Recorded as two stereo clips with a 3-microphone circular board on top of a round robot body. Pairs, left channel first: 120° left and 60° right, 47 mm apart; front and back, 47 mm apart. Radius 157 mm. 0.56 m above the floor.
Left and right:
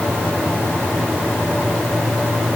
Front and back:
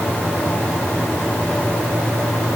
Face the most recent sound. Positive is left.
No sound to turn to.